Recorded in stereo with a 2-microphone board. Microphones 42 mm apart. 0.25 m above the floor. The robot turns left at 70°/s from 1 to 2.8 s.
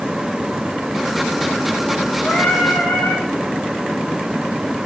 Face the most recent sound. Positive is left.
turn(degrees=115)